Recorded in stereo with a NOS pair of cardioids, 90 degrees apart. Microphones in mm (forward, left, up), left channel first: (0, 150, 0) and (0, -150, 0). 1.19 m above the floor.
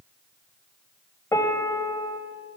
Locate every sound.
1.3 s a piano: 10° left, 3 m